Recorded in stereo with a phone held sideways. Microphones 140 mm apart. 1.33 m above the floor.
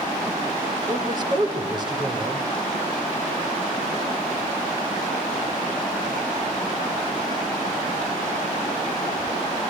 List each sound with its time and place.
0.9 s a man speaking: 30° right (ahead or behind), 4.5 m